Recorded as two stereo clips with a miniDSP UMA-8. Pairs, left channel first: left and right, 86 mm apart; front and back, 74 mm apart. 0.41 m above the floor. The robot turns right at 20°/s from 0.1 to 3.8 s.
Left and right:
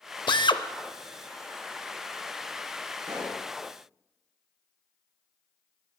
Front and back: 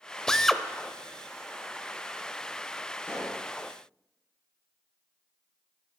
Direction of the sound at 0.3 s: 80° left.